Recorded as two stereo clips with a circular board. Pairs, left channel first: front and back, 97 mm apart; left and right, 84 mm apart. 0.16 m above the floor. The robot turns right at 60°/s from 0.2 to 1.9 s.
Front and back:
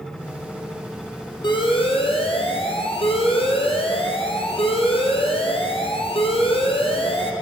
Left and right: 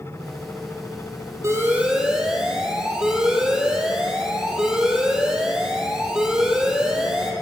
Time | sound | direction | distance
1.4 | an alarm | 35° right | 3 m